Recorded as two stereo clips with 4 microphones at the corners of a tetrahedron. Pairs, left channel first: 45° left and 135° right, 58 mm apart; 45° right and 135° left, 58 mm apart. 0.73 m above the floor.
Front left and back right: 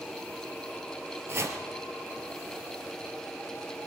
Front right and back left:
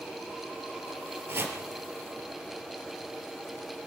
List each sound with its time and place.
1.3 s chopping: 175° right, 3 m